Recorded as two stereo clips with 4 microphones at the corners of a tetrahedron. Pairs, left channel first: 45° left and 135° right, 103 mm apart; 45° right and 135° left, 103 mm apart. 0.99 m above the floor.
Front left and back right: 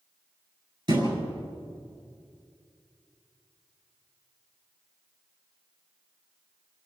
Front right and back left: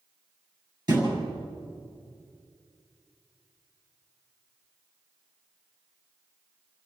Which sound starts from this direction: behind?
A thud, at 0.9 s.